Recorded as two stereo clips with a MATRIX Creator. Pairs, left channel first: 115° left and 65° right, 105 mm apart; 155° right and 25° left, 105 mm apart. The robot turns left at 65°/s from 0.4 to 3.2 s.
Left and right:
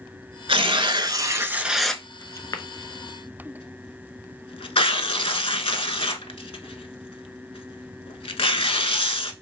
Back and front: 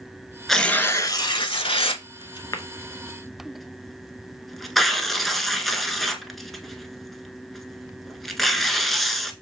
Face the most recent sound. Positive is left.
turn(degrees=115)